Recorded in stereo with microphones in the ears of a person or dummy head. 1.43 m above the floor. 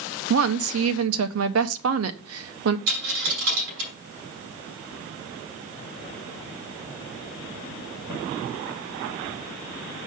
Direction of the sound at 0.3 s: 75° right (ahead or behind).